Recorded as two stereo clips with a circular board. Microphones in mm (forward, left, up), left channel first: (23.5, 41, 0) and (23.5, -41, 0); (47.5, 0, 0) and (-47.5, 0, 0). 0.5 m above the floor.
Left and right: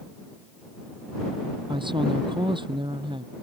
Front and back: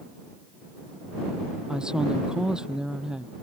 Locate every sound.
1.7 s a woman speaking: 100° right